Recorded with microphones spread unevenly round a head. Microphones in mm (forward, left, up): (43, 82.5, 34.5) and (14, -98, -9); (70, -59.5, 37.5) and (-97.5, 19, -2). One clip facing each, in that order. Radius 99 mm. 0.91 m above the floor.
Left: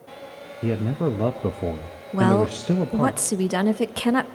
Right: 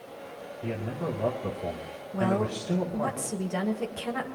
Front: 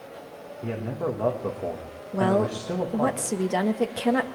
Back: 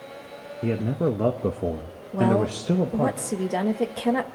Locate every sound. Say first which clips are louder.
0.6 s a man speaking: left 9 dB, back 5 dB; 115° left, 0.8 m
2.1 s a woman speaking: left 8 dB, back 1 dB; 70° left, 0.7 m